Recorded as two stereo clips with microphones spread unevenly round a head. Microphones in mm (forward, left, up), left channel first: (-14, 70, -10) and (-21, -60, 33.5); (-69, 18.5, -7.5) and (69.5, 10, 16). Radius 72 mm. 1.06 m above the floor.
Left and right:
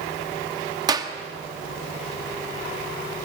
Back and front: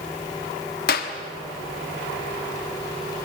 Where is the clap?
155° right, 1.4 m.